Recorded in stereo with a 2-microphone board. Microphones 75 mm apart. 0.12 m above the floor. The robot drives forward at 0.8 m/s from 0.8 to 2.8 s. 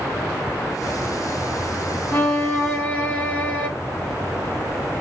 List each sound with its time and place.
2.1 s a violin: 20° left (ahead or behind), 0.6 m; by 3.7 s 15° left (ahead or behind), 0.8 m